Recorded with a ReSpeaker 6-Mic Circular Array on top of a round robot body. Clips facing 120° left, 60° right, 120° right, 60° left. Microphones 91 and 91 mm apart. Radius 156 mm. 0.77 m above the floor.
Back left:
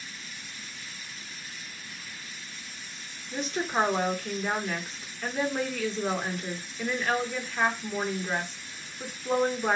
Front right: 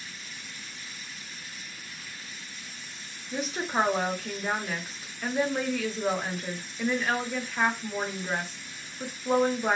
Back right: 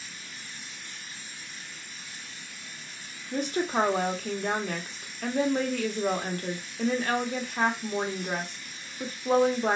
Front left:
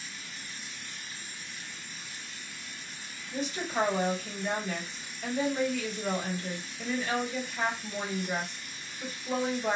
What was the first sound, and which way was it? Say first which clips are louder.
A woman speaking: even, back right 5 dB; 145° right.